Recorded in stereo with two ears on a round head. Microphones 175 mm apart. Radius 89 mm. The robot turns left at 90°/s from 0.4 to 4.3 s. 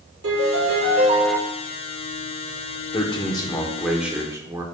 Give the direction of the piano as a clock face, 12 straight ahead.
2 o'clock.